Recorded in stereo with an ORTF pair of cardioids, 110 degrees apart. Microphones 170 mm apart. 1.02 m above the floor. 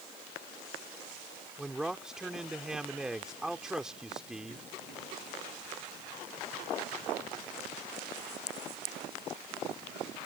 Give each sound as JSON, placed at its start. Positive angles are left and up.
{"t": 1.6, "sound": "a man speaking", "azimuth_deg": -5}